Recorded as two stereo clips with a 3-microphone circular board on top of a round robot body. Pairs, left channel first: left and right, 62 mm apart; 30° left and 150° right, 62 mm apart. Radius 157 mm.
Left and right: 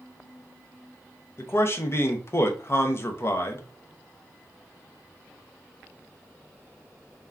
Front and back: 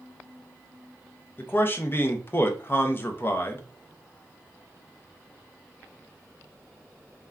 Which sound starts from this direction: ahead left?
A man speaking, at 1.4 s.